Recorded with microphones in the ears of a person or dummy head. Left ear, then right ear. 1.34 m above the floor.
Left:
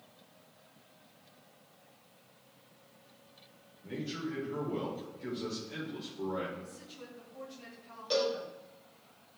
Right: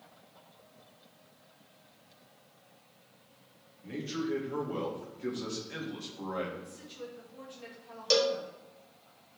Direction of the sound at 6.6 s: 15° right (ahead or behind).